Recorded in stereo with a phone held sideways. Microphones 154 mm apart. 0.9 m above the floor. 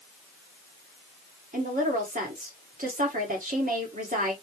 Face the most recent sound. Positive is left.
turn(degrees=-65)  # may be behind; listen again after turning